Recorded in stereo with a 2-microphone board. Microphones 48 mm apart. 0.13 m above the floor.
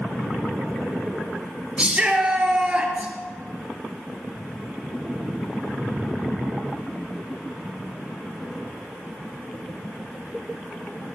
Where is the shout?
20° right (ahead or behind), 2.5 m.